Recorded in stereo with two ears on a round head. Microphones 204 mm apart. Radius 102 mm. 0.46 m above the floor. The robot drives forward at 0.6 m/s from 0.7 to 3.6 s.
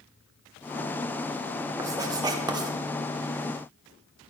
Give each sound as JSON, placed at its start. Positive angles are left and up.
{"t": 1.8, "sound": "writing", "side_deg": -15, "distance_m": 1.0}